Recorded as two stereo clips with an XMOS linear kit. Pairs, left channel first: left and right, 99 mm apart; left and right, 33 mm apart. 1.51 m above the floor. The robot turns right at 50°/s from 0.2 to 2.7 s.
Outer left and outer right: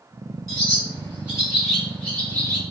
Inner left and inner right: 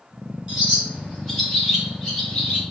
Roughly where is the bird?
Right.